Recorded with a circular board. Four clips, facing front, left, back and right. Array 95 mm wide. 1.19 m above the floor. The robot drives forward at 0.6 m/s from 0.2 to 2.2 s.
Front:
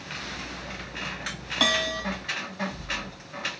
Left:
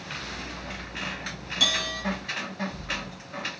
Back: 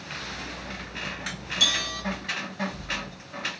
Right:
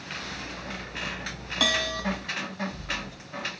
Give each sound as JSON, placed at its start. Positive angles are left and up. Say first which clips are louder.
{"t": 1.6, "sound": "a bell", "louder": "right 4 dB, front 7 dB", "azimuth_deg": -30, "distance_m": 1.4}